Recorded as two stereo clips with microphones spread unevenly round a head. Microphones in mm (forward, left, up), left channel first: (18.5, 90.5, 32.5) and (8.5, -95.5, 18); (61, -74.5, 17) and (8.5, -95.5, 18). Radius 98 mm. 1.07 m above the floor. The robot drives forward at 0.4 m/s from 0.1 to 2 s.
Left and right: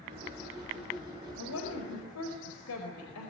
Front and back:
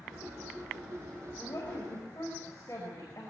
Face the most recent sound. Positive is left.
turn(degrees=90)